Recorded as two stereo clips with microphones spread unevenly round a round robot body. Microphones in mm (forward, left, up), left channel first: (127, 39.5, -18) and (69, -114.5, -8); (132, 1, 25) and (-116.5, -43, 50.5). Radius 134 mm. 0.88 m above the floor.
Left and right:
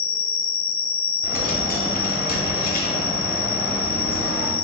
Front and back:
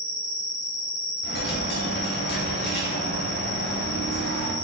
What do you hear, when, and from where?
0.0 s an insect: 45° left, 0.8 m
1.2 s a dropped coin: 60° left, 0.8 m